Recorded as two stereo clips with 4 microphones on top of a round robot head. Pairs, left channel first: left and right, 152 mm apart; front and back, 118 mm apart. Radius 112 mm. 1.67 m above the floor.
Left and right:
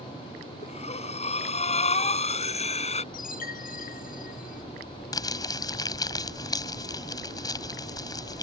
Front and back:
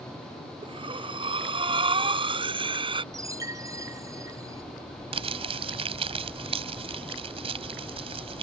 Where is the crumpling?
150° left.